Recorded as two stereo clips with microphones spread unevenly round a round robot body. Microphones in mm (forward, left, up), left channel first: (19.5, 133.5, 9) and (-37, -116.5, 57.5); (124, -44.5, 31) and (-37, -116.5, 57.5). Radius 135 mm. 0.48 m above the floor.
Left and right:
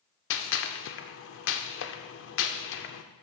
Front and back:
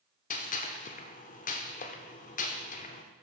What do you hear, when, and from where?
0.3 s a gunshot: 55° left, 0.6 m